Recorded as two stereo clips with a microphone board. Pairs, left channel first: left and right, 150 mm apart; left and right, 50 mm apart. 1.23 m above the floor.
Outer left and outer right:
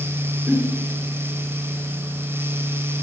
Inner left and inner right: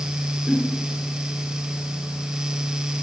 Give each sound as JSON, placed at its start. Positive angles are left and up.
{"t": 0.5, "sound": "a giggle", "side_deg": 0, "distance_m": 1.1}